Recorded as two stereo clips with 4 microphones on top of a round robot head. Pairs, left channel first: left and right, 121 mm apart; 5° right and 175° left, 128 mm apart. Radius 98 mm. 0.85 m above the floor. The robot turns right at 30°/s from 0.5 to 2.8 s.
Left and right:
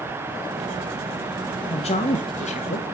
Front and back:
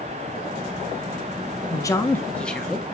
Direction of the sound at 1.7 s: 55° left.